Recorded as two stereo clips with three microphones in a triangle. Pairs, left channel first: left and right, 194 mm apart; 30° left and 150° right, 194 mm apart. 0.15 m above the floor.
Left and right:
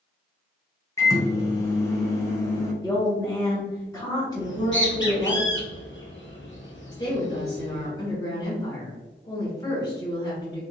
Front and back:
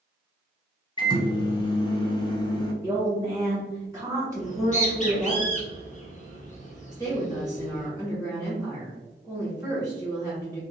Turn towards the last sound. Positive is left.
turn(degrees=150)